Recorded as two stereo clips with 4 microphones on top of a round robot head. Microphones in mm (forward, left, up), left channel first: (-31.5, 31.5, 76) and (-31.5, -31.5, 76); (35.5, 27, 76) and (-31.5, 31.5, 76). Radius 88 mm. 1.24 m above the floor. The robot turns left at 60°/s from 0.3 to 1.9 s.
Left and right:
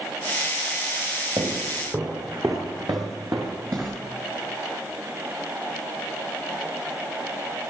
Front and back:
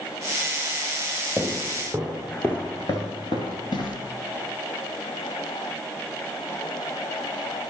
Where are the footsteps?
80° right, 1.4 m; by 4.0 s 15° right, 1.5 m.